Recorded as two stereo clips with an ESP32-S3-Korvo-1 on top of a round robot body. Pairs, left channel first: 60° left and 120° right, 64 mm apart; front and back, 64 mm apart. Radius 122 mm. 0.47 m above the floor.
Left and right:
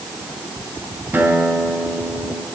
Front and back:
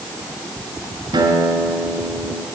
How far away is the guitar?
About 4 m.